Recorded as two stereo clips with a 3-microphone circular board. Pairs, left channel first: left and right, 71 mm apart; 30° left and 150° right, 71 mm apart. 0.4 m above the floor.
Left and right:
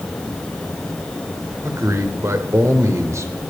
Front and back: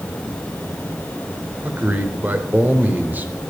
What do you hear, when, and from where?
1.6 s a man speaking: 95° right, 1.1 m